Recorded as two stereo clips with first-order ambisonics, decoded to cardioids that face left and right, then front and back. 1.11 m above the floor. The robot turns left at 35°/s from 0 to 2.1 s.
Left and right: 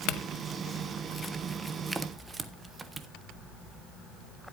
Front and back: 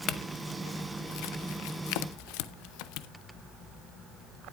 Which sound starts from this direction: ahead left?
A clink, at 0.1 s.